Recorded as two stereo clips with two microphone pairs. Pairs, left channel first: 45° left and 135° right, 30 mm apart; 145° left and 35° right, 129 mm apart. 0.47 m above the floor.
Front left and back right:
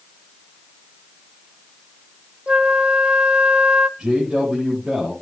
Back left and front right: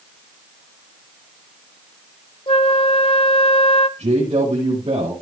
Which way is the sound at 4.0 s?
70° right.